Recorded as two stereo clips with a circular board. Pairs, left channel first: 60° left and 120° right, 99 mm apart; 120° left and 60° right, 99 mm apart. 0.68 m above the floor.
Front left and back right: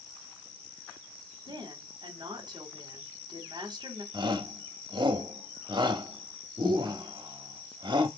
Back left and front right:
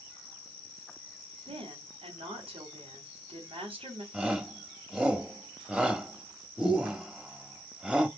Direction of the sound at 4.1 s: 140° right.